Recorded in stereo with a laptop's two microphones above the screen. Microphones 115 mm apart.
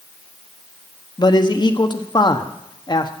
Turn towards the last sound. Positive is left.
turn(degrees=40)  # may be behind; listen again after turning